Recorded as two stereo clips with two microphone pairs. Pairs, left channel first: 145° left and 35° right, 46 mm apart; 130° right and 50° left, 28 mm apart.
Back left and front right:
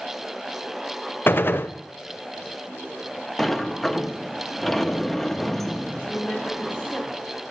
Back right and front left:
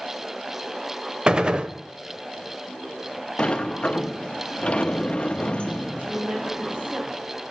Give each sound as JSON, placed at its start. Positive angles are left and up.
{"t": 1.3, "sound": "a gunshot", "azimuth_deg": 110, "distance_m": 0.6}
{"t": 3.4, "sound": "a sliding door", "azimuth_deg": -135, "distance_m": 0.8}
{"t": 6.0, "sound": "a woman speaking", "azimuth_deg": 85, "distance_m": 3.5}